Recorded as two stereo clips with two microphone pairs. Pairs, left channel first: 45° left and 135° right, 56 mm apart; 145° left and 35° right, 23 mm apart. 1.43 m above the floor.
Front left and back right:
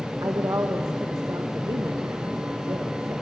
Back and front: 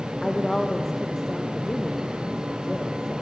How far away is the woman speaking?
About 1.2 m.